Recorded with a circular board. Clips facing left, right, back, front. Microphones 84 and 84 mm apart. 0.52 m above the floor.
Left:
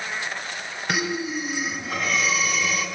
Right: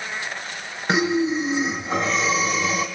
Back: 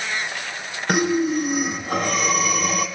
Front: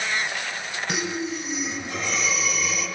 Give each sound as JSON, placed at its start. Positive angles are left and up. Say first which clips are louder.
{"t": 0.9, "sound": "breathing", "louder": "right 7 dB, back 10 dB", "azimuth_deg": -150, "distance_m": 3.0}